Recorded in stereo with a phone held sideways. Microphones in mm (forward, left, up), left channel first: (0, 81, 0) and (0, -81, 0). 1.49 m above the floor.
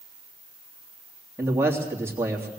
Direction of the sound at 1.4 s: 15° right (ahead or behind).